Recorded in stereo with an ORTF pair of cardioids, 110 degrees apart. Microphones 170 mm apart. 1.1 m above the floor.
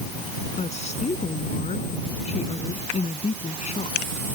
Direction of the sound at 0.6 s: 40° left.